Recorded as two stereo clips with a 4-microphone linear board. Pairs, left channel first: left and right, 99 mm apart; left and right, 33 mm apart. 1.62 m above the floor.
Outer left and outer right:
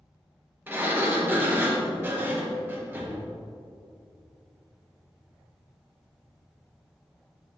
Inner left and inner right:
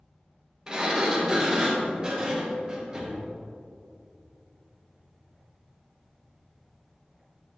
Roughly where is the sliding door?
Right.